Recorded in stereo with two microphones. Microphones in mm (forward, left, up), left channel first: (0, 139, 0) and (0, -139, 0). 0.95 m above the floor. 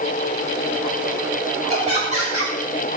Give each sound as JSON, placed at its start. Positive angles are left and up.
{"t": 1.7, "sound": "laughter", "side_deg": -25, "distance_m": 3.5}